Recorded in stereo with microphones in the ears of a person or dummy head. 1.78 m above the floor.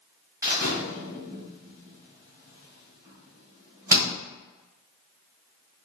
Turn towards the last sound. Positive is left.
turn(degrees=-15)  # may be behind; listen again after turning